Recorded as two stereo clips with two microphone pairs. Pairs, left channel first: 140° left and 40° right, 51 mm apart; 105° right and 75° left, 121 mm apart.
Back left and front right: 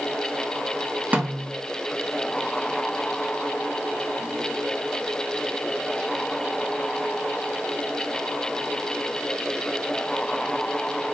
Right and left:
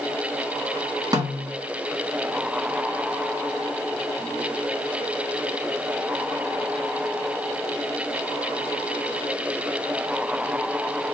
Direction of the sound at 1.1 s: 15° left.